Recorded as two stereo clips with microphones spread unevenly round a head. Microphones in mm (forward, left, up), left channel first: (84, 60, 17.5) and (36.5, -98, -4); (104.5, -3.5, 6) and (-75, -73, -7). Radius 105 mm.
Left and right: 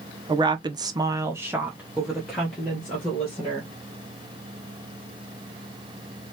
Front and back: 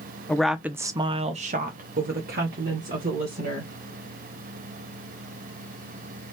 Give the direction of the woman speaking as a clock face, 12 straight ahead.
2 o'clock.